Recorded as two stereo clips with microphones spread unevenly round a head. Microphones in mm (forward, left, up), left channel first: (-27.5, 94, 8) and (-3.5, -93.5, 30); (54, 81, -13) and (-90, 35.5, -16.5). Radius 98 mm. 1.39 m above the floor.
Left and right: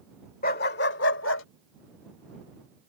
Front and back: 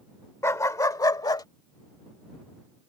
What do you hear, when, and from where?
0.4 s a dog barking: 75° left